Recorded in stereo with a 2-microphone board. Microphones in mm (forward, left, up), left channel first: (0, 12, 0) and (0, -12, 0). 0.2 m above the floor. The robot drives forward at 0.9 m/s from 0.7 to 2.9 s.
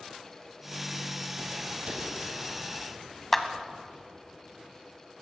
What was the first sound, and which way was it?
A door slam, 65° right (ahead or behind).